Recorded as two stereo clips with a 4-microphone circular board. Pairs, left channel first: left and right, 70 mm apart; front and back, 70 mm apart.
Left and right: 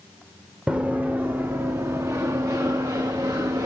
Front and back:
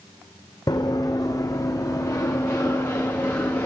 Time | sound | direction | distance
0.7 | running footsteps | 20° right | 2.0 m